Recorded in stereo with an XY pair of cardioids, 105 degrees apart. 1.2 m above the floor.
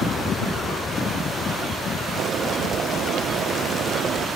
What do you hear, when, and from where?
2.2 s boiling: 60° right